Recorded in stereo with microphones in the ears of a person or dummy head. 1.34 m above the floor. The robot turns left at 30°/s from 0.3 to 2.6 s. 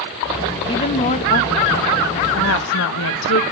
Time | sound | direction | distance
0.7 | a woman speaking | 160° left | 1.3 m